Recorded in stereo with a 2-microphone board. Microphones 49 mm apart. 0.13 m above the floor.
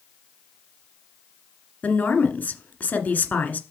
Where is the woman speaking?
35° left (ahead or behind), 1.6 m.